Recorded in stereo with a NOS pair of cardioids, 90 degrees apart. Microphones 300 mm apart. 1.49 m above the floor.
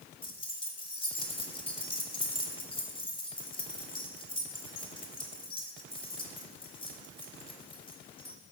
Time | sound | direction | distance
0.2 | keys jangling | 20° left | 2.5 m